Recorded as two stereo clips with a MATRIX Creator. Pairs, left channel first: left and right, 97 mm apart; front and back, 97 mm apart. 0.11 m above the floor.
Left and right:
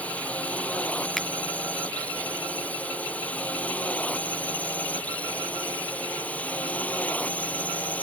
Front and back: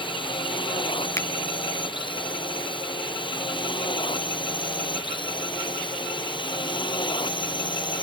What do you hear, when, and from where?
0.0 s a drone: 15° left
1.2 s a finger snap: 5° left